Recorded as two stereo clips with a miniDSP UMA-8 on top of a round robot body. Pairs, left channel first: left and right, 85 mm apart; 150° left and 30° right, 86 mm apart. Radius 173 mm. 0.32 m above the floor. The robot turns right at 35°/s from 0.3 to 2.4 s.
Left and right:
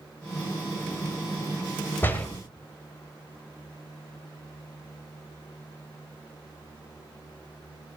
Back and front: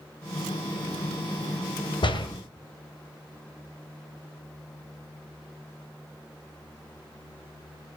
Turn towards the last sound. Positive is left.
turn(degrees=165)